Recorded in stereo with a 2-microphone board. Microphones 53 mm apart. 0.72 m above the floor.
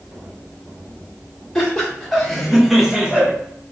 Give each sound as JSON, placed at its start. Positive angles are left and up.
{"t": 1.6, "sound": "laughter", "side_deg": 10, "distance_m": 1.8}